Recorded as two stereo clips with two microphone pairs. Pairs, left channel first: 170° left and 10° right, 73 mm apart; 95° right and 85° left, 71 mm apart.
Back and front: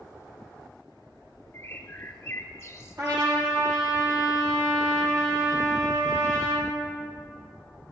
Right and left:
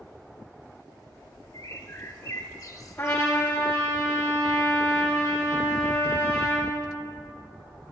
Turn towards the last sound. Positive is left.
turn(degrees=-40)